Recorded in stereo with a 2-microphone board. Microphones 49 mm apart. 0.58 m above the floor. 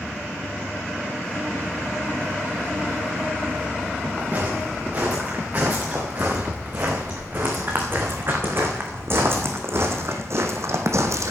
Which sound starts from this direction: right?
Footsteps, at 4.2 s.